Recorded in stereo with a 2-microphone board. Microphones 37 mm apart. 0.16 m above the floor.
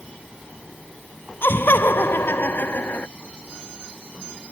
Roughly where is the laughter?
Left.